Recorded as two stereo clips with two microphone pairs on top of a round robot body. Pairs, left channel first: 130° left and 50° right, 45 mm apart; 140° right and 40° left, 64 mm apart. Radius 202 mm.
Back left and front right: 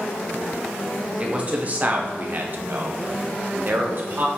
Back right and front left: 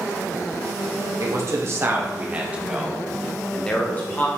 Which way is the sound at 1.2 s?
5° left.